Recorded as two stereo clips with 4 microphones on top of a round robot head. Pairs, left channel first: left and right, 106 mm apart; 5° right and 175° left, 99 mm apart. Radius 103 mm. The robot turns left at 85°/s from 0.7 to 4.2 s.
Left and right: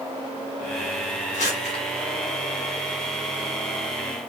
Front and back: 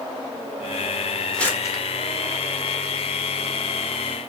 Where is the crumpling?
80° left, 1.1 m; by 1.8 s 35° left, 1.1 m.